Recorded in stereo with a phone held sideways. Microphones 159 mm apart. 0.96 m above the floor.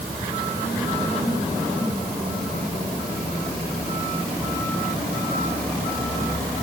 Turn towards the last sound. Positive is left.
No sound to turn to.